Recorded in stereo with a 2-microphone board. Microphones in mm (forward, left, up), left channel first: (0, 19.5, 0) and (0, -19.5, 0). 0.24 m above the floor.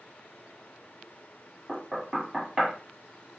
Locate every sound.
1.7 s knocking: 10° right (ahead or behind), 1.4 m